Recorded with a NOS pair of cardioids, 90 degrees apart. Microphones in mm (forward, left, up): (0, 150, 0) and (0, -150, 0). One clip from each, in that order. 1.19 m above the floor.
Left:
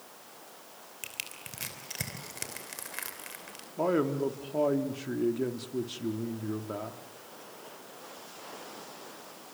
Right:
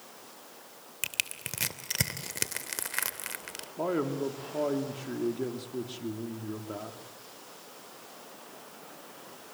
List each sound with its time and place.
1.0 s crushing: 45° right, 3 m
3.8 s a man speaking: 20° left, 3.5 m